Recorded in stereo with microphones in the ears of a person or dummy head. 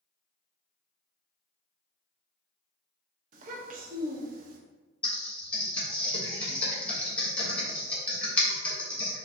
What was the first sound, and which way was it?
A child speaking, 50° right (ahead or behind).